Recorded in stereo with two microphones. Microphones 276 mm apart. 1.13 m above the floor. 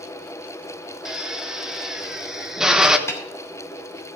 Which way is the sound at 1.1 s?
Centre (ahead or behind).